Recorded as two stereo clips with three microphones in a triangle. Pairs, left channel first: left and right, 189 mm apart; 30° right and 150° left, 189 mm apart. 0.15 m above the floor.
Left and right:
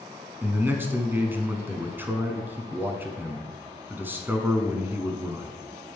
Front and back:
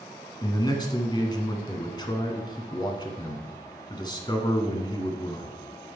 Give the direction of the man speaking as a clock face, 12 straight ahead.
1 o'clock.